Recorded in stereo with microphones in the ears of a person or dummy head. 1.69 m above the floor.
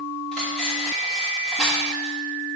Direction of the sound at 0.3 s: Centre (ahead or behind).